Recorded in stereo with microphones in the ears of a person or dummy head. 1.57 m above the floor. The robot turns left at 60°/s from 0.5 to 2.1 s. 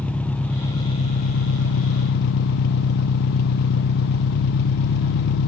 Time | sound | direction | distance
0.0 | an engine running | 170° left | 0.7 m